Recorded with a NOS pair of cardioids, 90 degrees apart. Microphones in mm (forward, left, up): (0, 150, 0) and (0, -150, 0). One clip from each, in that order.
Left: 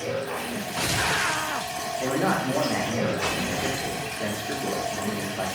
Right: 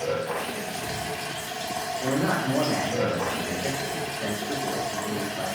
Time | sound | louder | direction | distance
0.0 | running water | right 1 dB | 15° left | 1.2 m
2.0 | a man speaking | left 2 dB | 20° left | 0.8 m